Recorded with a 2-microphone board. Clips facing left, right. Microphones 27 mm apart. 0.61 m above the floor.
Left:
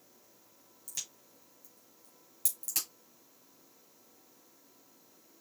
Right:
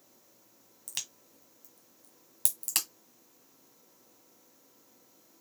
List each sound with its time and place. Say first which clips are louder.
0.9 s a crack: right 3 dB; 70° right (ahead or behind), 1.3 m